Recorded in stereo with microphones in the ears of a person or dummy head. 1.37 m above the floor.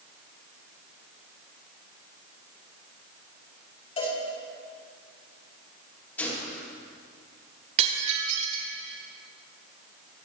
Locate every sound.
4.0 s a cowbell: 30° left (ahead or behind), 6 m
6.2 s a gunshot: 15° left (ahead or behind), 4 m
7.8 s breaking glass: 40° right (ahead or behind), 3 m